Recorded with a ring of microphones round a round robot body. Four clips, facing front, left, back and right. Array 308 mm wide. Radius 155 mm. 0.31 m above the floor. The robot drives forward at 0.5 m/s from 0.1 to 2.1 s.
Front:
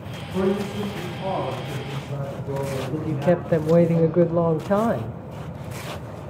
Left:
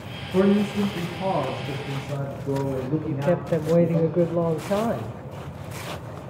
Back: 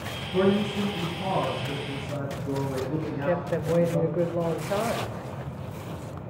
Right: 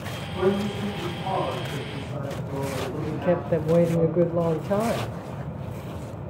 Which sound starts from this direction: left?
A man speaking, at 0.3 s.